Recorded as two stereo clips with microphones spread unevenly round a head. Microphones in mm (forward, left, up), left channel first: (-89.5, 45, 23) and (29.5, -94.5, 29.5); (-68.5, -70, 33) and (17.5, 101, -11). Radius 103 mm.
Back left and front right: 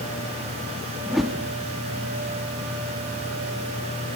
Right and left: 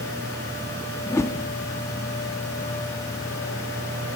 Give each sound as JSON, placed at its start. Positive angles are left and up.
{"t": 1.1, "sound": "a whoosh", "azimuth_deg": -135, "distance_m": 1.2}